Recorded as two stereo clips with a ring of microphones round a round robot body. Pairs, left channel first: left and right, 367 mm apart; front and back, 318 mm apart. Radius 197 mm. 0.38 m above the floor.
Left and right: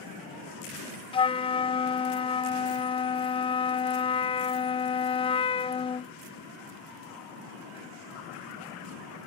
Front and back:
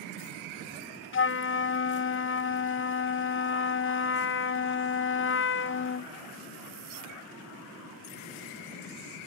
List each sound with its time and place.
1.1 s a flute: 20° left